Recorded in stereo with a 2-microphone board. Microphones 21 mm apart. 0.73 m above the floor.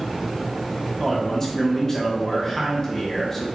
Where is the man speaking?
20° left (ahead or behind), 0.8 m.